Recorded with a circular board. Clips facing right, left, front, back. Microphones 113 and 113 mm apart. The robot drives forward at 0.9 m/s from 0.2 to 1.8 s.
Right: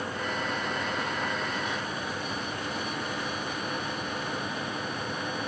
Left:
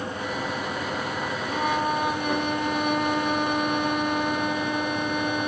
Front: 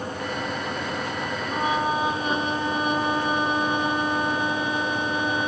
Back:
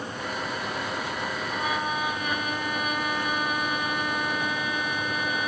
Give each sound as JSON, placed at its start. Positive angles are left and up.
{"t": 1.5, "sound": "a violin", "azimuth_deg": 60}